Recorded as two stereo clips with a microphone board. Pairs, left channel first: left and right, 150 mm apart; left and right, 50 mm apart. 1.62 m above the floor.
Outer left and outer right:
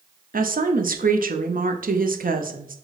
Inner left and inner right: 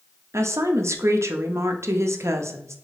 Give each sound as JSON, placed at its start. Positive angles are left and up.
{"t": 0.3, "sound": "a woman speaking", "side_deg": -70, "distance_m": 0.5}